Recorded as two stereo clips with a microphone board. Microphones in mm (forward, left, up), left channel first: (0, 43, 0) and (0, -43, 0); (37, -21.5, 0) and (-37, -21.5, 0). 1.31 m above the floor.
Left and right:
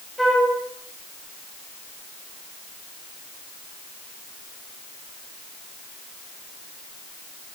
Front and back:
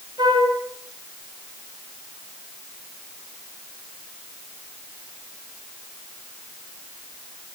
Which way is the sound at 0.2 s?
Straight behind.